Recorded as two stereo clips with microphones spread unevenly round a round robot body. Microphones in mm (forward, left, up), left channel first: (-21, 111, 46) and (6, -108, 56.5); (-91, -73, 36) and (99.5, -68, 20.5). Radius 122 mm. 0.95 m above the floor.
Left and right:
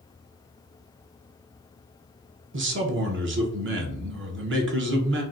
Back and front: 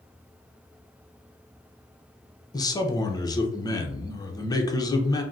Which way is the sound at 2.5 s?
105° right.